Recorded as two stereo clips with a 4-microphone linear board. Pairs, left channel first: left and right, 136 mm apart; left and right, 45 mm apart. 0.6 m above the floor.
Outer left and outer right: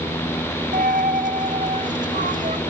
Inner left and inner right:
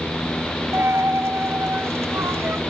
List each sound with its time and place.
0.7 s a dropped coin: 75° right (ahead or behind), 0.7 m